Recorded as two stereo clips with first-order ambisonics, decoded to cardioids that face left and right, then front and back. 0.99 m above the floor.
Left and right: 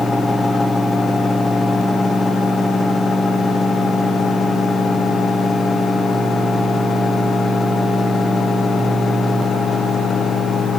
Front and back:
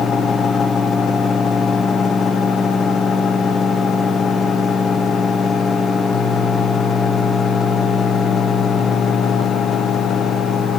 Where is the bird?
I don't hear a bird.